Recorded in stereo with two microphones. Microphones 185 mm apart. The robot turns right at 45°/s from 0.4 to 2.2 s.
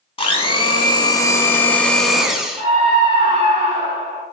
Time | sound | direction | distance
0.2 | a blender | 30° left (ahead or behind) | 0.5 m
2.6 | a scream | 25° right (ahead or behind) | 1.8 m